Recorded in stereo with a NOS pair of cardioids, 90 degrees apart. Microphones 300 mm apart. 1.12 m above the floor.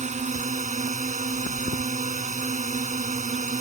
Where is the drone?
25° right.